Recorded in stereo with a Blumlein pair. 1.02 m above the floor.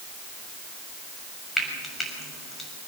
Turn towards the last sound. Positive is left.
turn(degrees=10)